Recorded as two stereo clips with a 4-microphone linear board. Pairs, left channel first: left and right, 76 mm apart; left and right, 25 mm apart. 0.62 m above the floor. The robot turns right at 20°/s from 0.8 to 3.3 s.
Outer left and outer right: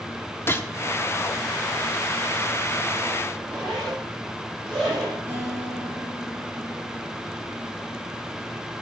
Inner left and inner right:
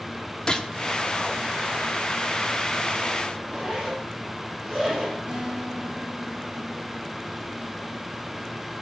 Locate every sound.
0.5 s a gunshot: 30° left (ahead or behind), 1.1 m
3.3 s a zipper: 5° right (ahead or behind), 8 m
5.3 s a guitar: 25° right (ahead or behind), 7.5 m